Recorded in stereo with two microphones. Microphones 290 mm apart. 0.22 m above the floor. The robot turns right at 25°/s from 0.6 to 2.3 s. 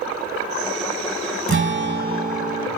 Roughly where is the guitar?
Right.